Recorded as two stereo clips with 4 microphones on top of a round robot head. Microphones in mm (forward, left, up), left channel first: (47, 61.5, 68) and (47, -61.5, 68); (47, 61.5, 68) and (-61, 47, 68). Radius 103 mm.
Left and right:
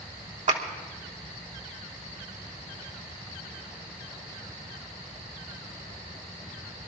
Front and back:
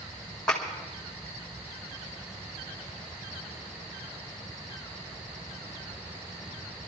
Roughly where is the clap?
Right.